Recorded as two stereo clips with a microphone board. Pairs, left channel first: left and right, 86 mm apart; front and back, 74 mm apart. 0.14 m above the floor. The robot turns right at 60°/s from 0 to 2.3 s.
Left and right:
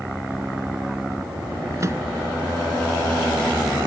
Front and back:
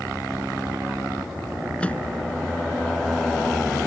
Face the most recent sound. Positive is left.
turn(degrees=-35)